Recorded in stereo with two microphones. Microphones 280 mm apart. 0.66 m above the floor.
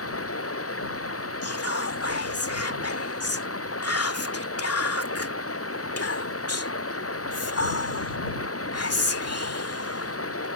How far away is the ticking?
I don't hear ticking.